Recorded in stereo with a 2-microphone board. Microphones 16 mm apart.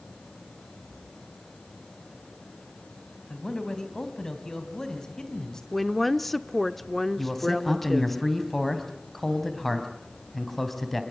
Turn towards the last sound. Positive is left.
turn(degrees=15)  # may be behind; listen again after turning